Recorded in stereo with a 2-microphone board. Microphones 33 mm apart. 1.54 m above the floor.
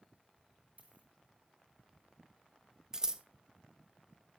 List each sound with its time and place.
0.8 s a dropped coin: 55° right (ahead or behind), 5.5 m
2.9 s scissors: 25° right (ahead or behind), 0.8 m